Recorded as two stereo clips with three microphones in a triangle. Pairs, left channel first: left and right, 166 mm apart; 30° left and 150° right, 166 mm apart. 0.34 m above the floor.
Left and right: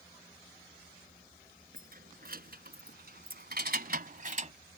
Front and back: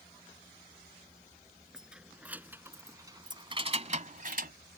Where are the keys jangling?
65° right; by 4.5 s 135° right.